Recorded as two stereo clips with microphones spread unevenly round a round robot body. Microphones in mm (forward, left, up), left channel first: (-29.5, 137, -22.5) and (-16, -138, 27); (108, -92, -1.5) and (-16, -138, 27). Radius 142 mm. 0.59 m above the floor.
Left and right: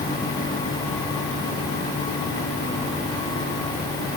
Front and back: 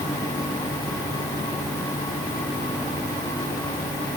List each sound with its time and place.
Only background noise.